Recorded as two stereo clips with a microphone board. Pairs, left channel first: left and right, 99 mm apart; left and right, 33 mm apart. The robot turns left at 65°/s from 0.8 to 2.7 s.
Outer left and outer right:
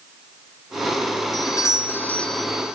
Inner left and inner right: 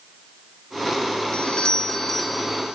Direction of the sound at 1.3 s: 75° left.